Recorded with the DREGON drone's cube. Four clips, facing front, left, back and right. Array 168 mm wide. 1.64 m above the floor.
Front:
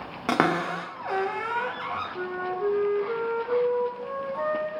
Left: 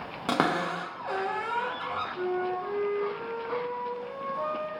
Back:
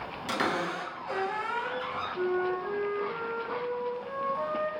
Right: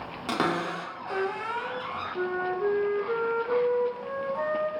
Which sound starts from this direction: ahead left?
A cupboard door, at 0.3 s.